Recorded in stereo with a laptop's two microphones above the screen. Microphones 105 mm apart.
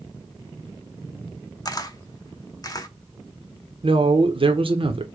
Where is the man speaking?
55° right (ahead or behind), 0.7 m.